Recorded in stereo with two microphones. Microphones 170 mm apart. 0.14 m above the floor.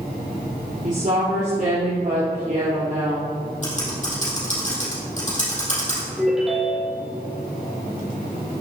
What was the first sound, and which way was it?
A woman speaking, 50° right (ahead or behind).